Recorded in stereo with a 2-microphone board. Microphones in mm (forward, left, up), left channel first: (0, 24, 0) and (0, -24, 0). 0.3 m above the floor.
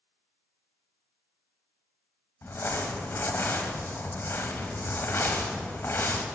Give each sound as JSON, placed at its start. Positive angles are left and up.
{"t": 2.4, "sound": "crumpling", "side_deg": 55, "distance_m": 0.5}